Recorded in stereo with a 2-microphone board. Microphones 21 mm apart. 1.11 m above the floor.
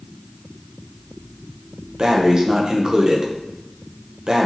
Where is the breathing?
35° right (ahead or behind), 0.5 m.